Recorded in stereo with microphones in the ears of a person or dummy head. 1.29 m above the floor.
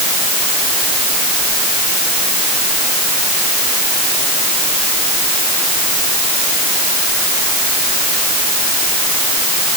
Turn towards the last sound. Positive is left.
No sound to turn to.